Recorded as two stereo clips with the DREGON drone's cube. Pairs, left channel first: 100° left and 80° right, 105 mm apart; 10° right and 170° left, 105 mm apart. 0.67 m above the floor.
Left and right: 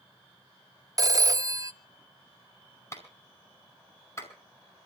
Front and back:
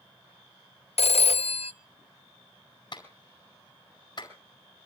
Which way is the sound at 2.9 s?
35° left.